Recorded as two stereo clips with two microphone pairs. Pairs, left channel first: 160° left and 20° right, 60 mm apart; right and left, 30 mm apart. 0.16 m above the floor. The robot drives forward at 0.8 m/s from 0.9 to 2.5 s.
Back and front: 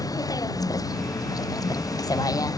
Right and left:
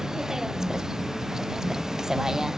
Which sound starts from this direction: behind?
A vehicle, at 0.0 s.